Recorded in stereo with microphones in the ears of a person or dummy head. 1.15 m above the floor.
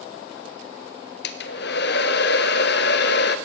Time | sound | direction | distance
1.2 | a hair dryer | 55° left (ahead or behind) | 0.9 m